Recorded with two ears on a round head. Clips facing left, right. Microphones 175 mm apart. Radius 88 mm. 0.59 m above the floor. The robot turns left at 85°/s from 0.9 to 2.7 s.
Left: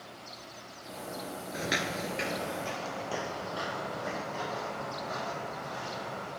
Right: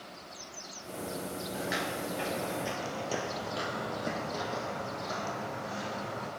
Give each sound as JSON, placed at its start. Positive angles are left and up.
{"t": 1.5, "sound": "footsteps", "side_deg": 25, "distance_m": 0.6}